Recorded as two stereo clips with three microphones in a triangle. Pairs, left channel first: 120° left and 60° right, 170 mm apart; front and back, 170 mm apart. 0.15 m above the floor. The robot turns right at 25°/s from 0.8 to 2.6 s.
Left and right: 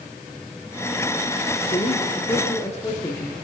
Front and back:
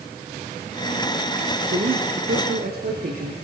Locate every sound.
1.7 s a man speaking: 170° left, 4 m; by 3.5 s 170° right, 4 m